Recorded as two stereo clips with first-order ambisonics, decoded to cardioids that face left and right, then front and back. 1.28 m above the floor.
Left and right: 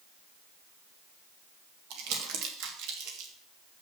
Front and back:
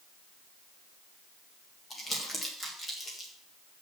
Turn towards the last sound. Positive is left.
turn(degrees=-80)